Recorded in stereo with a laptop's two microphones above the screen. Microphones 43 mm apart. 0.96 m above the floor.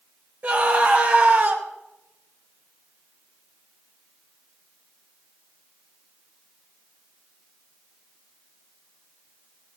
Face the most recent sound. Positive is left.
turn(degrees=-55)  # may be behind; listen again after turning